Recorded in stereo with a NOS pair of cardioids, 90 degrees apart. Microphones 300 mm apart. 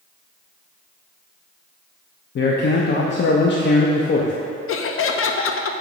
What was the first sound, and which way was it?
A man speaking, 40° left.